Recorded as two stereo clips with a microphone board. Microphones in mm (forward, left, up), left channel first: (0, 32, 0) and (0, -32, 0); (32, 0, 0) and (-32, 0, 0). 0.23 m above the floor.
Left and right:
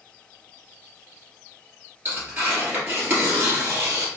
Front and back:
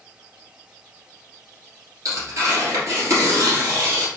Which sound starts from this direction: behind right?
Tearing paper, at 2.0 s.